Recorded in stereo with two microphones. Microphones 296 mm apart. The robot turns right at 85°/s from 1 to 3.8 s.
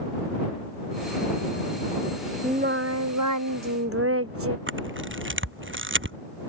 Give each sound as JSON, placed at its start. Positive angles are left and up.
{"t": 2.4, "sound": "singing", "azimuth_deg": -165}
{"t": 4.7, "sound": "a camera shutter", "side_deg": -40}